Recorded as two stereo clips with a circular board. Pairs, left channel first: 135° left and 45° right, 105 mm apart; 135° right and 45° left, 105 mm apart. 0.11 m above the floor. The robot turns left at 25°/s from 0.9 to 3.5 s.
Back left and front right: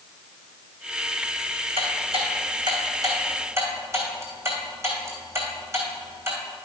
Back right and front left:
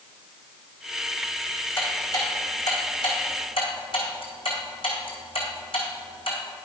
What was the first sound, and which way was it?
Ticking, 65° right.